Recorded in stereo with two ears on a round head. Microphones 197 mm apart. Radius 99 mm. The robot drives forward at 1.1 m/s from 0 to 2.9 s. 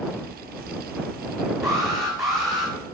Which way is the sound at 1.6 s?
Centre (ahead or behind).